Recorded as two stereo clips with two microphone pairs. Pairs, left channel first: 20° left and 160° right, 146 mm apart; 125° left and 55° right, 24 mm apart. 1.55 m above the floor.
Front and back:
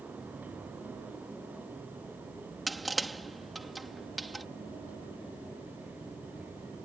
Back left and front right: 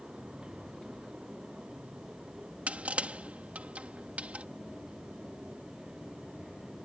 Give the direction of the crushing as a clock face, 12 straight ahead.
2 o'clock.